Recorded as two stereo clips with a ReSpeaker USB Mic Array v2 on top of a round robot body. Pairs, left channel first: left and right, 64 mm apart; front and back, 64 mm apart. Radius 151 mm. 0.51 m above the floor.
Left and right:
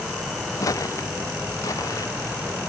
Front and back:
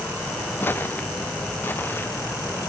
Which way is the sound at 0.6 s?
60° left.